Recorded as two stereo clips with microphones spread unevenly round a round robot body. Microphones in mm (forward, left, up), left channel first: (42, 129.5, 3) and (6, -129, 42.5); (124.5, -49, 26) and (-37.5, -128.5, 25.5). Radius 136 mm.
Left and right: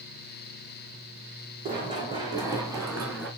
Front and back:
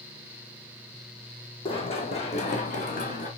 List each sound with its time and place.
1.6 s running footsteps: 30° right, 2.5 m; by 3.3 s 20° right, 4 m